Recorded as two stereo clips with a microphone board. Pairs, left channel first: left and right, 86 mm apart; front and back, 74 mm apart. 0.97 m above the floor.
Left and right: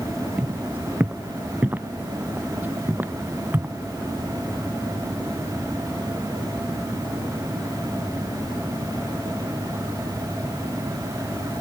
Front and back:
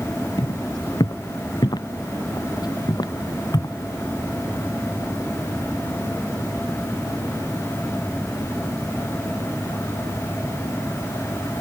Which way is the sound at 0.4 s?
20° right.